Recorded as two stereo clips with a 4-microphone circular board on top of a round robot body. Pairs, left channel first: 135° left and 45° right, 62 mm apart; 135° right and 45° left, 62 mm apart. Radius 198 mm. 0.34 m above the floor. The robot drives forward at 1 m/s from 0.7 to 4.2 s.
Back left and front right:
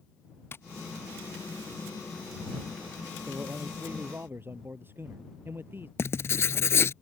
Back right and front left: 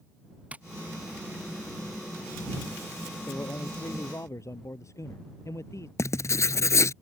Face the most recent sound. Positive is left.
turn(degrees=-175)